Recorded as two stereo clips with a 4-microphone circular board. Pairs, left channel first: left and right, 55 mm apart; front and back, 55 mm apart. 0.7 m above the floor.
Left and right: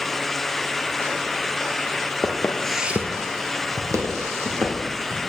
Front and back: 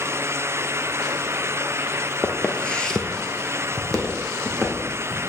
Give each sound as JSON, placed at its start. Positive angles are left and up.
{"t": 2.2, "sound": "footsteps", "azimuth_deg": 70, "distance_m": 1.0}